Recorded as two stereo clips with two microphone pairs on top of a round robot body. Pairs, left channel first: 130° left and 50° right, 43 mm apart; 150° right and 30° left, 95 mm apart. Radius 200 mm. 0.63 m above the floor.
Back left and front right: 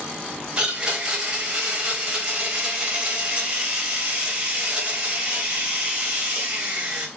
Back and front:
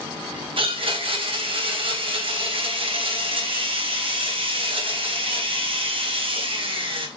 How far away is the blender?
About 3.5 m.